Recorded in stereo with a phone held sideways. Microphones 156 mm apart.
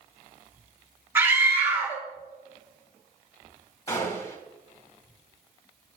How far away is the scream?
About 3.5 m.